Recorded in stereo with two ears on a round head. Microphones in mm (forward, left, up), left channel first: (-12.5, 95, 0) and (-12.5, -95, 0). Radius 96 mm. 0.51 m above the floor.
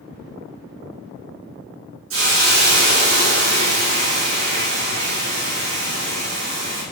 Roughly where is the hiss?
Right.